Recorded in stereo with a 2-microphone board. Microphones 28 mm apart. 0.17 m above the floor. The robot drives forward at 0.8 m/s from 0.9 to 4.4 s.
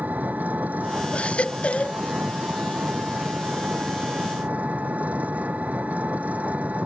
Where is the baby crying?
45° left (ahead or behind); by 2.0 s 40° left (ahead or behind).